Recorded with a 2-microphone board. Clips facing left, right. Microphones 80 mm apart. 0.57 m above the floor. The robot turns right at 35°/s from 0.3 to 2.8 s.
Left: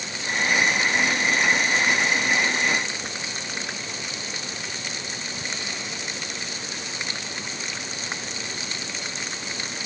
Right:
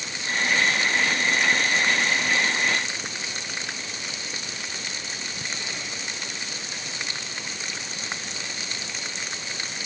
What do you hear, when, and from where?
Only background noise.